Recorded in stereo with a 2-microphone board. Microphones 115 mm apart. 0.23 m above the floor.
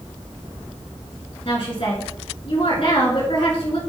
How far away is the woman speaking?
About 3.5 m.